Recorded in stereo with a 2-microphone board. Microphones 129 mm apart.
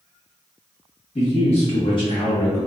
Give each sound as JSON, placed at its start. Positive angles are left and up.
{"t": 1.1, "sound": "a man speaking", "side_deg": 60, "distance_m": 1.3}